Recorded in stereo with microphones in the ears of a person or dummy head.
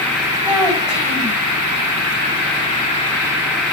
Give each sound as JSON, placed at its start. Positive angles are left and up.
{"t": 0.4, "sound": "a child speaking", "side_deg": 15, "distance_m": 4.0}